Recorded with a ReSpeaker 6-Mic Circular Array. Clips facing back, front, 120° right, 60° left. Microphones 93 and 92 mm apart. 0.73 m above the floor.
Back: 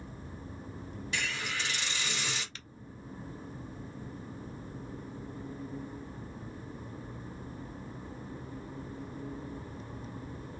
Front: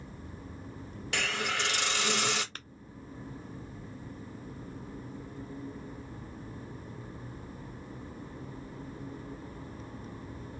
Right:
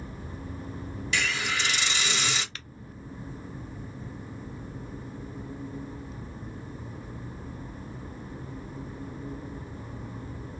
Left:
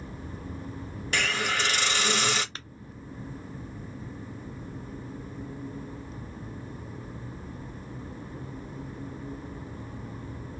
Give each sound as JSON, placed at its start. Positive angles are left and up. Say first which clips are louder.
{"t": 1.1, "sound": "a hiss", "louder": "front 4 dB, left 2 dB", "azimuth_deg": 20, "distance_m": 1.1}
{"t": 2.5, "sound": "tapping", "louder": "front 4 dB, left 2 dB", "azimuth_deg": 15, "distance_m": 0.6}